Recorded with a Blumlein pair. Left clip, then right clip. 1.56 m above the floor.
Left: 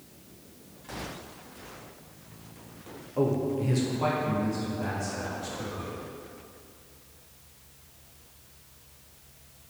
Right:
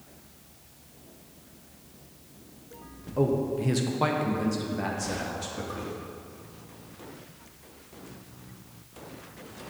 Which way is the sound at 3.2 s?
Straight ahead.